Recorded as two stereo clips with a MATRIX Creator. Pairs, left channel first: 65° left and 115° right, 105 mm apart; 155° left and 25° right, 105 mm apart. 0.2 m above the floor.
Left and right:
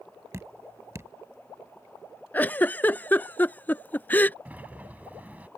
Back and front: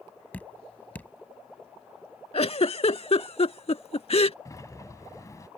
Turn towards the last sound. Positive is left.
turn(degrees=-175)